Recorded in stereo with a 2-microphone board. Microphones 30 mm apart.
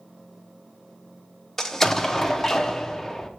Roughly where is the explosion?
Centre.